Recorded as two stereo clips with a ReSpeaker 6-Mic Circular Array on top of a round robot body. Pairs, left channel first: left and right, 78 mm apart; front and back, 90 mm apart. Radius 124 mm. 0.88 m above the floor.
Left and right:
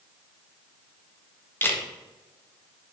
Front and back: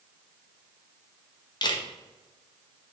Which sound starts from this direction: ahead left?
A camera shutter, at 1.6 s.